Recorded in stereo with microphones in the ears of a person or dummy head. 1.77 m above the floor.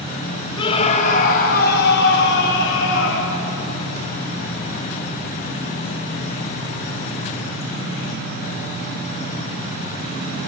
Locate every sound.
0.6 s a scream: 25° left (ahead or behind), 2.5 m; by 3.4 s 75° left (ahead or behind), 5.5 m